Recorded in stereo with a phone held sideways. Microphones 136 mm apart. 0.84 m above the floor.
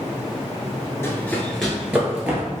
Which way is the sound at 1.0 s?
20° left (ahead or behind).